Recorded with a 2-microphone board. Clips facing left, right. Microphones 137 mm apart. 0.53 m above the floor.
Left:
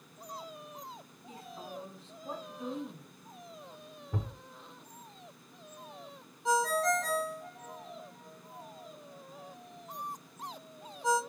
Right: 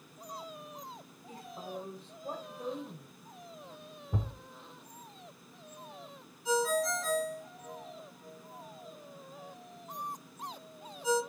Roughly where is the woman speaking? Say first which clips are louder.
Right 2 dB; right.